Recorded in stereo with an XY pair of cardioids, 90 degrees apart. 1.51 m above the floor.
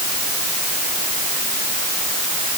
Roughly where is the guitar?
No guitar in this recording.